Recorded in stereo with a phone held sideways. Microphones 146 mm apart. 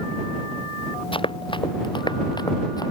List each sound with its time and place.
1.1 s running footsteps: 35° left (ahead or behind); by 2.9 s 25° left (ahead or behind)